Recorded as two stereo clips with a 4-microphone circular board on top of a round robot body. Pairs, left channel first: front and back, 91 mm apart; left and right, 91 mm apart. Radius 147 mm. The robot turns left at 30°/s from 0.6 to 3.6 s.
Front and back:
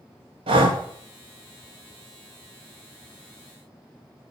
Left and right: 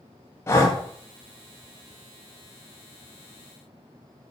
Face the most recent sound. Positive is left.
turn(degrees=60)